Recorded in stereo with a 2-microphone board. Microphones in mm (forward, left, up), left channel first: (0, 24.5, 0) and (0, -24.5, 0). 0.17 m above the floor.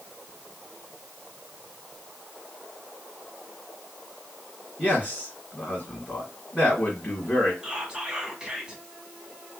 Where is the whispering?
15° right (ahead or behind), 1.0 m.